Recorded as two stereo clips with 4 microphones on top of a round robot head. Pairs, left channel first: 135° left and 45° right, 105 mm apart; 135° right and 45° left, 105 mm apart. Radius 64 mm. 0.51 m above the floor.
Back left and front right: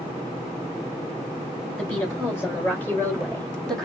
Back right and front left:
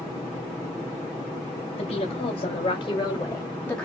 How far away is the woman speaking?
About 3 m.